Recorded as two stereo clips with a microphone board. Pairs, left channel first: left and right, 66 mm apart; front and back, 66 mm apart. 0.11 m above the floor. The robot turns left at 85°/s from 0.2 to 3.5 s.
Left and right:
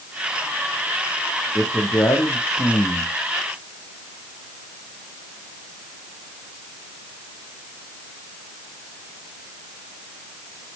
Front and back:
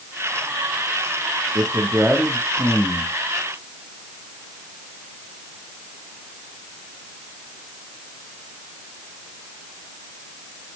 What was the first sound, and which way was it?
A man speaking, 155° left.